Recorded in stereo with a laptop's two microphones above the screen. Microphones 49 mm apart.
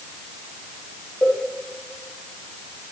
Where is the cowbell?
30° left (ahead or behind), 7.5 m.